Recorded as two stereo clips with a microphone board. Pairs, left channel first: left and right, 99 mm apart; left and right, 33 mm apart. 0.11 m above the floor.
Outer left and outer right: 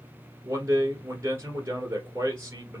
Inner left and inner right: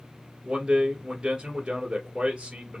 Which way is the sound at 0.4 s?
25° right (ahead or behind).